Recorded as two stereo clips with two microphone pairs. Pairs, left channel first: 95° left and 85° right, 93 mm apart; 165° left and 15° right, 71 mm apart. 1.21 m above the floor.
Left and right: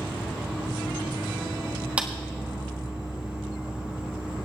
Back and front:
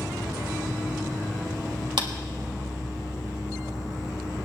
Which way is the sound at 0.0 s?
5° right.